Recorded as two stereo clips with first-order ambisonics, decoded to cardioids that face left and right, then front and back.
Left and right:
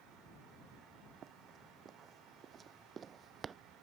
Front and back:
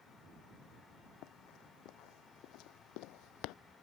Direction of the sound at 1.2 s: 35° right.